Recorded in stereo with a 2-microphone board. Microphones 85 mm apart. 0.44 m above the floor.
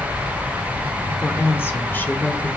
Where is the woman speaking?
30° left (ahead or behind), 1.0 m; by 2.6 s 15° left (ahead or behind), 1.3 m.